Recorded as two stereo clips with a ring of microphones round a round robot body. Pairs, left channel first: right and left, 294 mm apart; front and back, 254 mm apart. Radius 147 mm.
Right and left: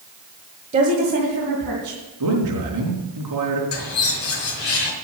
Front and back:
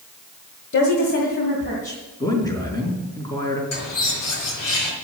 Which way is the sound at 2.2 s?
75° left.